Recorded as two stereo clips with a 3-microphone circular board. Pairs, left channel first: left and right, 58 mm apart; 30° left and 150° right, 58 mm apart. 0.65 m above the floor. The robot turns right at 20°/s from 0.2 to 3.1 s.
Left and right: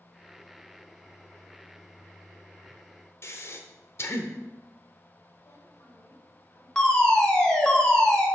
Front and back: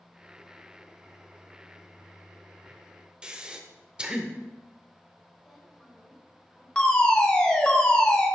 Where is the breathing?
135° left, 0.7 m.